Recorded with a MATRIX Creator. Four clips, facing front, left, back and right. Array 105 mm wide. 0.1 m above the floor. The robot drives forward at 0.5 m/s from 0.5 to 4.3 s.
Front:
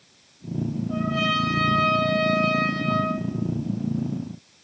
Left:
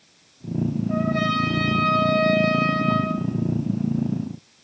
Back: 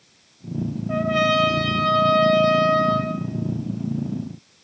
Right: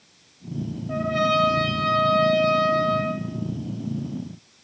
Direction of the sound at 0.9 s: 170° right.